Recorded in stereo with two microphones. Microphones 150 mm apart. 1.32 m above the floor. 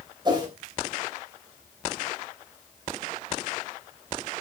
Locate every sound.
0.2 s a whoosh: 30° right (ahead or behind), 3 m